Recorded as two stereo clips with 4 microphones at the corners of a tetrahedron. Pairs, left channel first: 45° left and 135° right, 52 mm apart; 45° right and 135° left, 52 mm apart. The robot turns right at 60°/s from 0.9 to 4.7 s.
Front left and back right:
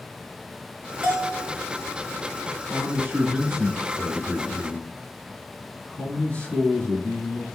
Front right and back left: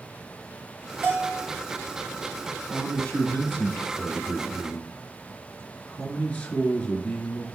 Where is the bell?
175° left, 3 m; by 1.5 s 160° right, 3 m.